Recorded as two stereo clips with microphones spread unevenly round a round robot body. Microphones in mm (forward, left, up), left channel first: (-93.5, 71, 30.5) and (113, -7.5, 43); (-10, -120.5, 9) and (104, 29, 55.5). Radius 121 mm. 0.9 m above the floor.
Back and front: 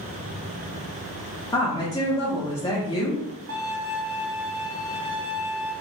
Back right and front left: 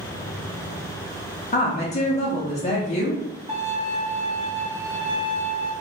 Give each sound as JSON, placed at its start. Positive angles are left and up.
{"t": 1.5, "sound": "a woman speaking", "azimuth_deg": -135, "distance_m": 0.6}
{"t": 3.5, "sound": "a violin", "azimuth_deg": -10, "distance_m": 1.3}